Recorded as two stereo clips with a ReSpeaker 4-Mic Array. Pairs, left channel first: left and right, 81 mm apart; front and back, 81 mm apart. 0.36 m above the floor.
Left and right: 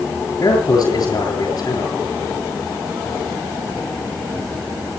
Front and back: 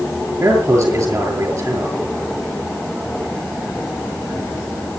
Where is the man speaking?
135° left, 8.5 m.